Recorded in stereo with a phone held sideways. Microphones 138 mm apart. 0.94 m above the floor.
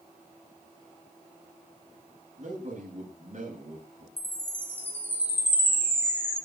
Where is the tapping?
I don't hear tapping.